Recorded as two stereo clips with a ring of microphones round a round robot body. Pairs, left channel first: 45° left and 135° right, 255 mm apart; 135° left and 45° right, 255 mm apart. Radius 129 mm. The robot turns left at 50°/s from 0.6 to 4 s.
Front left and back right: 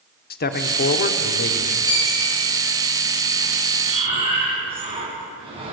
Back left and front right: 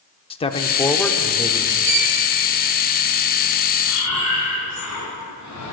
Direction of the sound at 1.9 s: 25° right.